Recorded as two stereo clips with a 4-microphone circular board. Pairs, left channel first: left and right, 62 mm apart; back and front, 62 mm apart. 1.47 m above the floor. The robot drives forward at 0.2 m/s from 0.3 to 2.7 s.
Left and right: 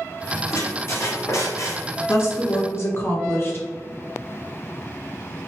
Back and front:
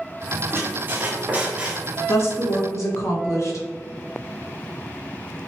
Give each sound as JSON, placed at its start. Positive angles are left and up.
{"t": 0.5, "sound": "a squeak", "azimuth_deg": 50, "distance_m": 0.7}
{"t": 2.1, "sound": "a woman speaking", "azimuth_deg": 135, "distance_m": 0.8}